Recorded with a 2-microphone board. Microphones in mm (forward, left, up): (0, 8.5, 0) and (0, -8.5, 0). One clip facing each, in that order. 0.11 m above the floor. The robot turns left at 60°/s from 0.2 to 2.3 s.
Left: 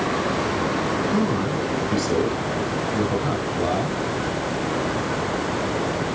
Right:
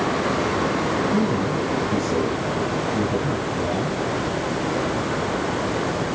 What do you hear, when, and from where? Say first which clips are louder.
1.1 s a man speaking: right 1 dB; 155° left, 3.5 m; by 4.0 s 85° left, 3.5 m